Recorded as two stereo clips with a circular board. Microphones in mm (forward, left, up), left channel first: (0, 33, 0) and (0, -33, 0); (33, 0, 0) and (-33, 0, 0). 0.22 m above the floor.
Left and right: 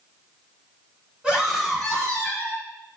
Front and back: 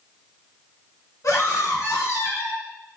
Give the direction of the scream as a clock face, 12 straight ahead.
1 o'clock.